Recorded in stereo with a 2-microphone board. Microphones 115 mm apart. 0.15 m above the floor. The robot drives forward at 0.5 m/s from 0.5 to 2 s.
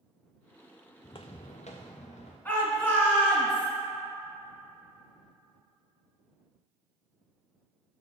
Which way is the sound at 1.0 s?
40° left (ahead or behind).